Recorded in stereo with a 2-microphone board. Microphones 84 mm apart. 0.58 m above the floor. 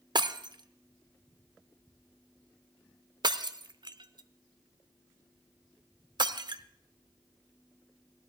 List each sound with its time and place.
0.1 s breaking glass: 60° right (ahead or behind), 0.5 m